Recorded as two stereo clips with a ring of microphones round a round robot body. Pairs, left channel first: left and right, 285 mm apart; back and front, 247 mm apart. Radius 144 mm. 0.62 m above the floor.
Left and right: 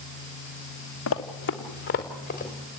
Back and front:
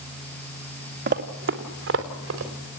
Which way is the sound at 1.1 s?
45° left.